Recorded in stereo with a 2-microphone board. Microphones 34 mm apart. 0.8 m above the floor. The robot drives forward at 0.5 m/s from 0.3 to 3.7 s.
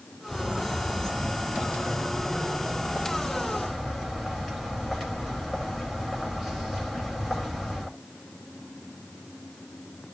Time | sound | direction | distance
0.3 | a bird | 15° left (ahead or behind) | 10 m